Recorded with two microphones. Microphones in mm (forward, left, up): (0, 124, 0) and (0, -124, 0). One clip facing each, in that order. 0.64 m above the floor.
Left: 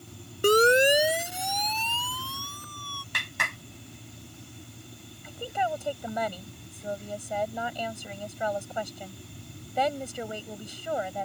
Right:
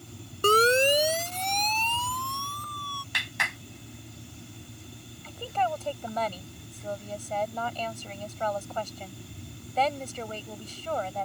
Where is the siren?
15° left (ahead or behind); by 3.0 s 5° left (ahead or behind).